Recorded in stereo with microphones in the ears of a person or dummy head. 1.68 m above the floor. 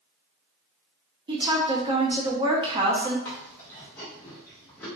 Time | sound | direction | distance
1.3 | a woman speaking | 25° right (ahead or behind) | 0.8 m
3.2 | chewing | 10° left (ahead or behind) | 0.9 m